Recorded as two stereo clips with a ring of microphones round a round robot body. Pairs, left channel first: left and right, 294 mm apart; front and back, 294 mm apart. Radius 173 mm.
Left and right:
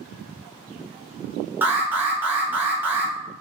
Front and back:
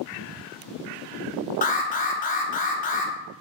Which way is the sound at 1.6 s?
15° right.